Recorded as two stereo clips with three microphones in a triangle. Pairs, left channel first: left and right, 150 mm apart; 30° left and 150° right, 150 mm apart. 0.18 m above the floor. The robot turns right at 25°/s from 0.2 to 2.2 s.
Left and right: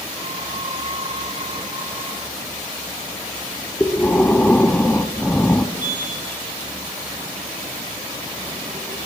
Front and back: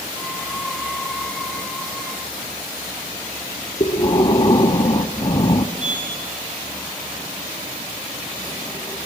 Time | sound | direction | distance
3.8 | breathing | 20° left | 0.7 m
5.8 | a sliding door | 65° right | 7 m